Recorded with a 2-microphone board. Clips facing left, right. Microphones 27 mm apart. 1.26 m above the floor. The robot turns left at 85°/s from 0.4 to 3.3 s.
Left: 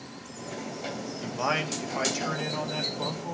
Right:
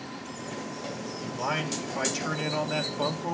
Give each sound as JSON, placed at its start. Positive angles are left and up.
{"t": 1.2, "sound": "a man speaking", "azimuth_deg": 85, "distance_m": 1.8}